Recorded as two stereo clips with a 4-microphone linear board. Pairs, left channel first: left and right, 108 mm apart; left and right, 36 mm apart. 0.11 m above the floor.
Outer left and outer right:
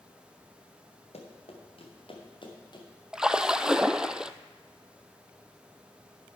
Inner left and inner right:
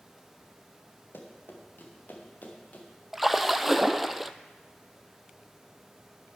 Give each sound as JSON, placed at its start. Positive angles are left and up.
{"t": 1.1, "sound": "running footsteps", "side_deg": 70, "distance_m": 3.5}
{"t": 3.1, "sound": "a splash", "side_deg": -5, "distance_m": 0.5}